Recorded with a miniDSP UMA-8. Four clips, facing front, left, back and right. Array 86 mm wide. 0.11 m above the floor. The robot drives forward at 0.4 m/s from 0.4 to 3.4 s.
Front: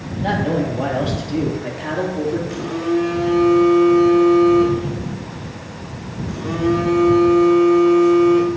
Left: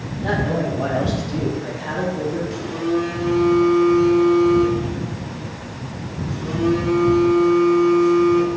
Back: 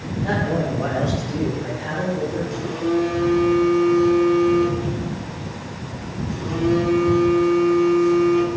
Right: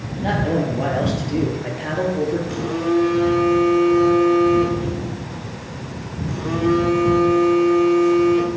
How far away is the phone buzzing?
About 2 m.